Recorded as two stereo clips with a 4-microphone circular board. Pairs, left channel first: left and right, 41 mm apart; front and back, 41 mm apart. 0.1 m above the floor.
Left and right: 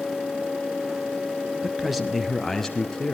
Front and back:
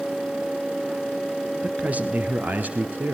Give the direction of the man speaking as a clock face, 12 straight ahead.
5 o'clock.